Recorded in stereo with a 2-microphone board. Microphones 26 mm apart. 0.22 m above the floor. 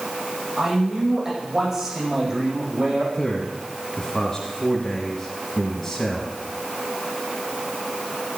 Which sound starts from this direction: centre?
A man speaking, at 3.1 s.